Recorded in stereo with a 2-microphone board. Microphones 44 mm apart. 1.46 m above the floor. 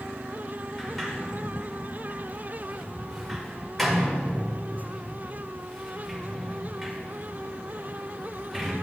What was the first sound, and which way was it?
A sliding door, 5° left (ahead or behind).